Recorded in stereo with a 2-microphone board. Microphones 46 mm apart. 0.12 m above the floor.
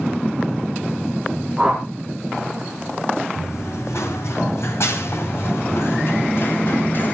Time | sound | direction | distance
1.6 | a whoosh | 10° right (ahead or behind) | 3.5 m
3.4 | running footsteps | 70° left (ahead or behind) | 7.5 m